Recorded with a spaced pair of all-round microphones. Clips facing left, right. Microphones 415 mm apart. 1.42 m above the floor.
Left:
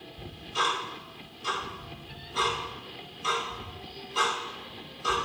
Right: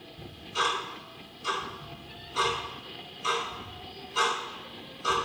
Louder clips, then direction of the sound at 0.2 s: Right 1 dB; 5° left (ahead or behind).